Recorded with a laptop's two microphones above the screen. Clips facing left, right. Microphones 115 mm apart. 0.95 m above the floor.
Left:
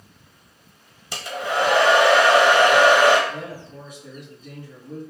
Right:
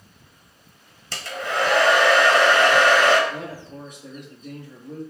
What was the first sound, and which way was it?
A hair dryer, 15° left (ahead or behind).